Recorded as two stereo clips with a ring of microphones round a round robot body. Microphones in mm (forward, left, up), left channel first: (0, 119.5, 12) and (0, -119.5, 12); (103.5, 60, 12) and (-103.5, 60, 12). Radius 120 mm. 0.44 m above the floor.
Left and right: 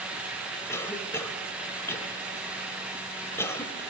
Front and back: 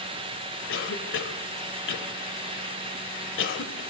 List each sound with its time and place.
0.7 s a cough: 10° left, 1.8 m